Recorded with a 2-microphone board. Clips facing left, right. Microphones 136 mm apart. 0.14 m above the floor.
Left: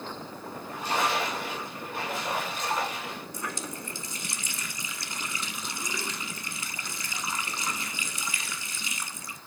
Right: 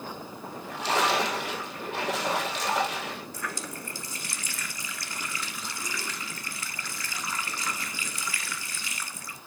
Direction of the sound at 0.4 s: 75° right (ahead or behind).